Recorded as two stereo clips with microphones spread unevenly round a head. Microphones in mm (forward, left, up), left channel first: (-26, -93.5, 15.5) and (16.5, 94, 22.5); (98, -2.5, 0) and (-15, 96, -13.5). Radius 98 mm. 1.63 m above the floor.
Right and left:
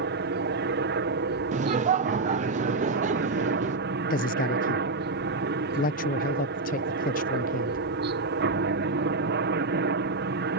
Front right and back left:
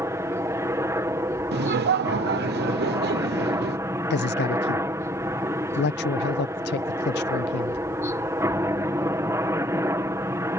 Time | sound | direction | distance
0.0 | a helicopter | 75° left | ?
1.5 | laughter | 135° left | ?
4.1 | a man speaking | 50° right | ?